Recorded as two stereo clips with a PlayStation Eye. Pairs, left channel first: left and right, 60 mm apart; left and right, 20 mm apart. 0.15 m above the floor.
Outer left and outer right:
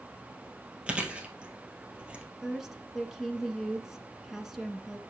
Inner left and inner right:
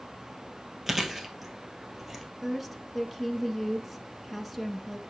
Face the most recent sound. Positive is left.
turn(degrees=-5)  # may be behind; listen again after turning